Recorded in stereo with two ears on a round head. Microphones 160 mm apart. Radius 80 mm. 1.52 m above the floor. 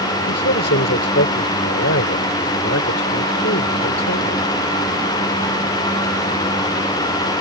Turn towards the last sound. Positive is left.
turn(degrees=75)  # may be behind; listen again after turning